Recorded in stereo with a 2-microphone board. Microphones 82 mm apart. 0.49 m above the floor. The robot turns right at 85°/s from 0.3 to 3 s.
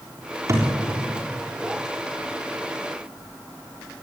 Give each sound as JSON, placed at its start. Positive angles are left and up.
{"t": 0.5, "sound": "a thud", "side_deg": -35, "distance_m": 7.0}